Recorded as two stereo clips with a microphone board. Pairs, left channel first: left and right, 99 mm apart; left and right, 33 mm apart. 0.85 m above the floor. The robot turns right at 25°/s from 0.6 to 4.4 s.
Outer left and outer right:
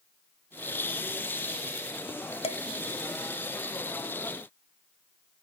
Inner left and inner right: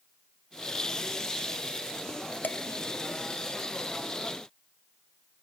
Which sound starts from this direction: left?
Dishes clattering, at 2.4 s.